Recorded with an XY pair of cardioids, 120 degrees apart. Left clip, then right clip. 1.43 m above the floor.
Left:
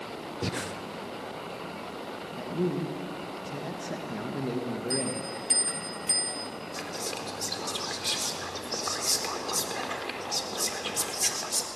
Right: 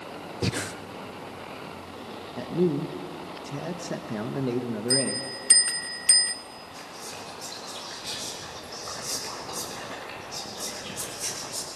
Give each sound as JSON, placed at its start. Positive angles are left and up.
{"t": 0.4, "sound": "breathing", "azimuth_deg": -30, "distance_m": 0.7}
{"t": 2.4, "sound": "a man speaking", "azimuth_deg": -30, "distance_m": 1.4}
{"t": 4.9, "sound": "a bell", "azimuth_deg": -50, "distance_m": 0.8}
{"t": 6.7, "sound": "whispering", "azimuth_deg": 45, "distance_m": 4.0}